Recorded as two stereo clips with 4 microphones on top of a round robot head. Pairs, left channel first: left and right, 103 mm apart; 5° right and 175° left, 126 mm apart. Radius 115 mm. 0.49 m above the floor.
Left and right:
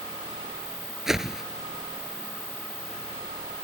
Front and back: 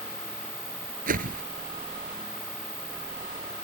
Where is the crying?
I don't hear crying.